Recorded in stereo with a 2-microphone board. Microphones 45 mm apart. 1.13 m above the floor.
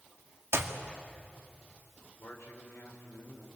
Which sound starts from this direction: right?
A clap, at 0.5 s.